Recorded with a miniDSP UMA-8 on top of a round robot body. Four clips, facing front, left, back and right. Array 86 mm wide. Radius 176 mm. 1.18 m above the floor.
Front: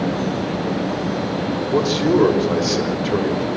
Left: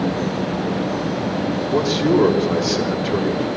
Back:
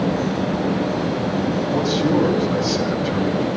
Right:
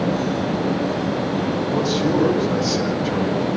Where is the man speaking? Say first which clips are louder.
Left 4 dB, front 3 dB; 25° left, 7.5 m.